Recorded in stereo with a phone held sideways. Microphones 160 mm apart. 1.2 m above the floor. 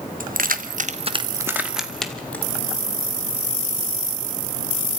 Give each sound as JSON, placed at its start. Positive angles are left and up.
{"t": 0.2, "sound": "keys jangling", "side_deg": -70, "distance_m": 1.4}